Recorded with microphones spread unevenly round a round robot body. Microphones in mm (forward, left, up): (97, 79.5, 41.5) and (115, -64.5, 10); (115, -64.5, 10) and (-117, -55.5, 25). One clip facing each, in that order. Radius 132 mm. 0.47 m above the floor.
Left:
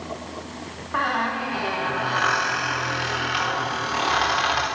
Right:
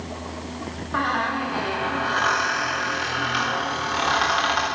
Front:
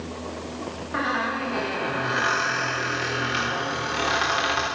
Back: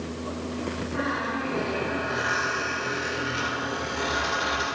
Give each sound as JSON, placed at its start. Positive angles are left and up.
{"t": 0.9, "sound": "a squeak", "azimuth_deg": 10, "distance_m": 6.0}